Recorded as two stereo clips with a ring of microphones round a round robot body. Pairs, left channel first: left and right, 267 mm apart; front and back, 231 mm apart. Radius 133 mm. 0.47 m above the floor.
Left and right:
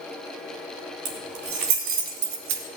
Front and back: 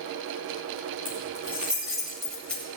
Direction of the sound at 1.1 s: 95° right.